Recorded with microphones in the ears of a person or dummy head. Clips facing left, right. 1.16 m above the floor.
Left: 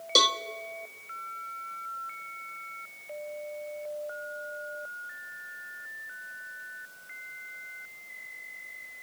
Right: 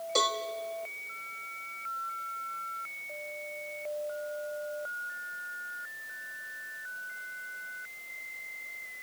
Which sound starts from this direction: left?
A cowbell, at 0.1 s.